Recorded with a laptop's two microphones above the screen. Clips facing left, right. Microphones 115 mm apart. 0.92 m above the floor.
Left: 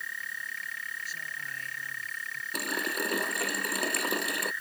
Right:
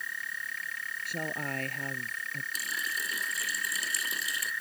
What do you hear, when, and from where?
1.1 s a woman speaking: 65° right (ahead or behind)
2.5 s a running tap: 60° left (ahead or behind)